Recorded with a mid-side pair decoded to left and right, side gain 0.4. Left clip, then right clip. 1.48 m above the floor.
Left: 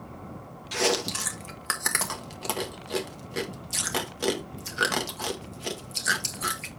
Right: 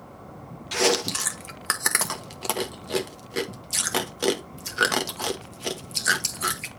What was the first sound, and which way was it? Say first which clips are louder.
Chewing: right 3 dB; 30° right.